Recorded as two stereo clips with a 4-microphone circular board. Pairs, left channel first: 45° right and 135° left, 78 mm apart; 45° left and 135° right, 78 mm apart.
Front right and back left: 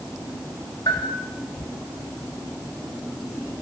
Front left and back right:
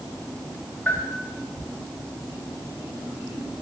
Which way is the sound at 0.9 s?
20° right.